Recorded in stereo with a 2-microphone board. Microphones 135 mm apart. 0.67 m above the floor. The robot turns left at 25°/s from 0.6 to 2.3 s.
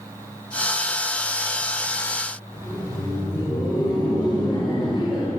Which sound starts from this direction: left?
Laughter, at 2.5 s.